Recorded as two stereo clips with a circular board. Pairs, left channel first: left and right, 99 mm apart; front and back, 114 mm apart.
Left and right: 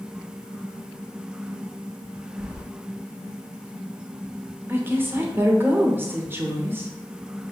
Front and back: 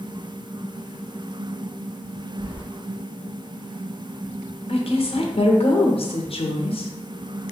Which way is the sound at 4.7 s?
25° right.